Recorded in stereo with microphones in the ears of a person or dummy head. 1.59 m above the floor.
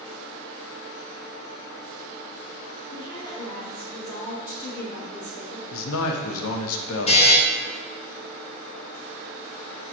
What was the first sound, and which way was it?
A woman speaking, 20° left (ahead or behind).